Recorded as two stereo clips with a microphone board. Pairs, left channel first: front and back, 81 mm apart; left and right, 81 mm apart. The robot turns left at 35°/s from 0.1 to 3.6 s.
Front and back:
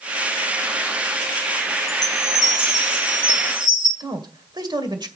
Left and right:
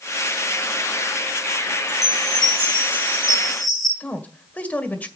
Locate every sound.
1.9 s a chime: 120° right, 4.5 m; by 3.9 s straight behind, 4.5 m
4.0 s a man speaking: 160° left, 1.8 m